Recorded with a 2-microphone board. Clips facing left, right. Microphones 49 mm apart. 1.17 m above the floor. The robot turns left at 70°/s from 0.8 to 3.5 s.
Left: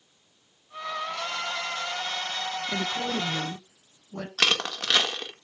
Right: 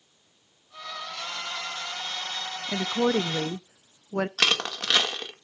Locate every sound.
2.7 s a woman speaking: 40° right, 0.6 m; by 4.3 s 95° right, 0.6 m
4.4 s crushing: centre (ahead or behind), 1.9 m